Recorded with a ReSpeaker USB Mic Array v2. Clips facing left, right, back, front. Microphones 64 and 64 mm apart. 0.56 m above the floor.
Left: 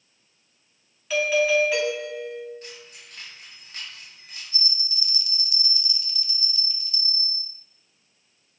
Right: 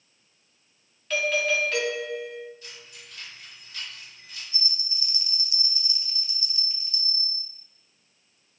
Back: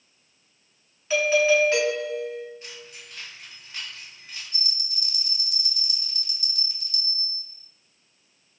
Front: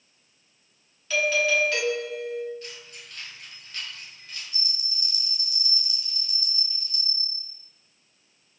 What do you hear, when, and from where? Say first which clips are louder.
1.1 s a doorbell: left 4 dB, back 4 dB; 160° left, 1.1 m
2.6 s keys jangling: left 3 dB, even; 115° left, 1.9 m
4.5 s a bell: left 4 dB, back 1 dB; 150° right, 0.6 m